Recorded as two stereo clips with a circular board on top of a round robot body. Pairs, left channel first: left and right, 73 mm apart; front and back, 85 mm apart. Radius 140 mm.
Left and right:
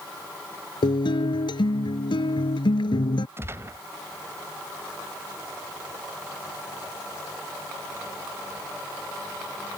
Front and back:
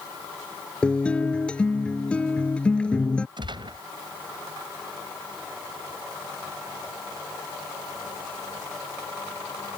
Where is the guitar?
80° left.